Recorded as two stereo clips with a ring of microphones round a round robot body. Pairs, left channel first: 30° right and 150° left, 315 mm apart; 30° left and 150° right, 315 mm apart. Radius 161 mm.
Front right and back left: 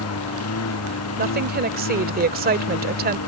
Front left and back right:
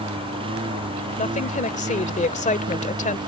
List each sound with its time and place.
0.0 s a lawn mower: 75° right
1.2 s a woman speaking: 95° left